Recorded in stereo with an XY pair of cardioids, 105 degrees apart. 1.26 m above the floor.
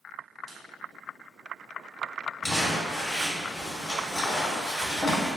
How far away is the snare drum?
About 0.9 m.